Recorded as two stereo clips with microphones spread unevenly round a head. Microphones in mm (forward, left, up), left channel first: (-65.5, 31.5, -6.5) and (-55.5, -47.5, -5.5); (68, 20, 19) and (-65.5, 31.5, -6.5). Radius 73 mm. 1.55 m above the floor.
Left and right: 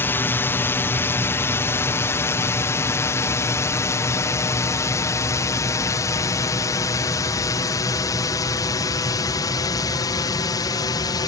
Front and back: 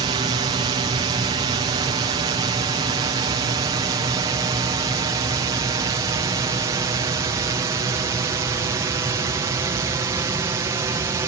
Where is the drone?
145° left; by 11.3 s 115° left.